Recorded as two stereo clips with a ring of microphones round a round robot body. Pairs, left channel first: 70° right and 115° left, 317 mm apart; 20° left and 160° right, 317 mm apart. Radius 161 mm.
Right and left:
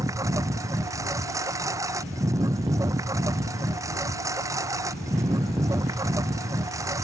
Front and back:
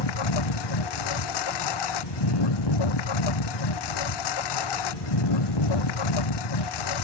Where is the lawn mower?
30° left.